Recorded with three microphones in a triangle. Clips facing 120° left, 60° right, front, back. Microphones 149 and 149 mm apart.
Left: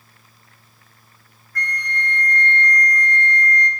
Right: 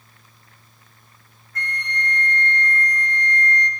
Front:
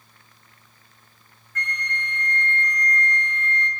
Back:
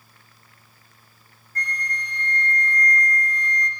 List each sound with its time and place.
1.6 s a flute: 130° right, 0.7 m